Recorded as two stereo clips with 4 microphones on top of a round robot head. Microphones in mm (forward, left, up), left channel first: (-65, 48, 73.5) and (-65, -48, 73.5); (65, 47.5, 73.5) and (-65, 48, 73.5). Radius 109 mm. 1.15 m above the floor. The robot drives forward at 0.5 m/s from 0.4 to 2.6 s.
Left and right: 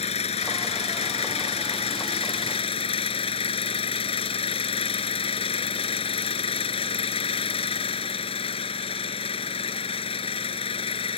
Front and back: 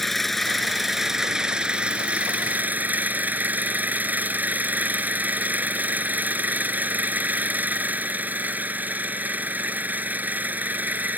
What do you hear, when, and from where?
0.0 s an engine running: 90° left; by 11.2 s 105° left